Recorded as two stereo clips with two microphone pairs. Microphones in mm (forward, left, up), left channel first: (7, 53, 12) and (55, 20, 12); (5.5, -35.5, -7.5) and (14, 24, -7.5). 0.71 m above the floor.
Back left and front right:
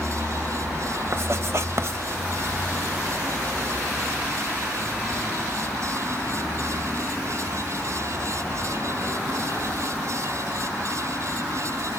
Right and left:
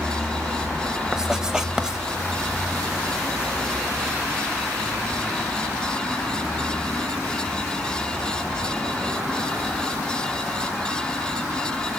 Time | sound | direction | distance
1.1 | writing | straight ahead | 0.8 m